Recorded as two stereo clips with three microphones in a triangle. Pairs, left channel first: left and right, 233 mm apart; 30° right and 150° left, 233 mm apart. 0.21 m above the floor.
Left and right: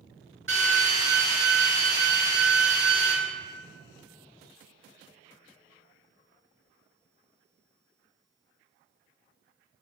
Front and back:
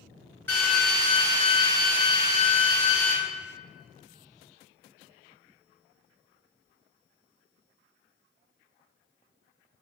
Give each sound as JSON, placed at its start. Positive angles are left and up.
{"t": 0.5, "sound": "a drill", "azimuth_deg": -110, "distance_m": 3.5}